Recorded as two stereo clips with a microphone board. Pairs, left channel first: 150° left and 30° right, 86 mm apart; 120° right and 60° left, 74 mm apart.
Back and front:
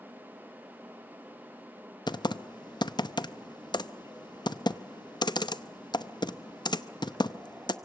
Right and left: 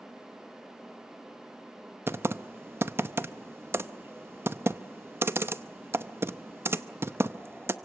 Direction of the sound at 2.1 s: 120° left.